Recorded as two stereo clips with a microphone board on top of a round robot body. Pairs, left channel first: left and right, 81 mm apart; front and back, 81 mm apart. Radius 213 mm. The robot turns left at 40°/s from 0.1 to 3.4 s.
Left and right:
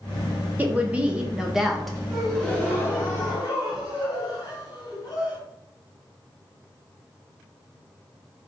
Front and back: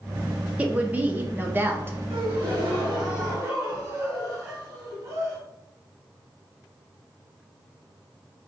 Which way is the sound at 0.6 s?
130° right.